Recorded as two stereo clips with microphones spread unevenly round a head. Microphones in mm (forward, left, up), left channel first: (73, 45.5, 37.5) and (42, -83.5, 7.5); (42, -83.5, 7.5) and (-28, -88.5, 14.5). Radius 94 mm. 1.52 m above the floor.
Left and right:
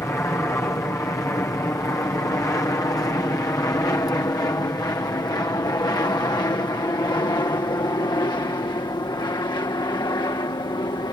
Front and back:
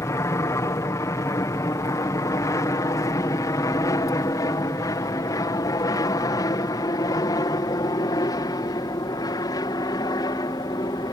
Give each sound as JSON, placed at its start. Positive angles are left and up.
{"t": 0.0, "sound": "an aircraft", "azimuth_deg": 5}